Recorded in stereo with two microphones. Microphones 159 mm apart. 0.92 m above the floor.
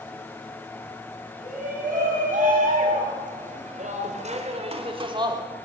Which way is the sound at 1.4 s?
65° right (ahead or behind).